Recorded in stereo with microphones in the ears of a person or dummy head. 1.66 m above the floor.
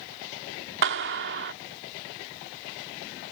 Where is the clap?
70° right (ahead or behind).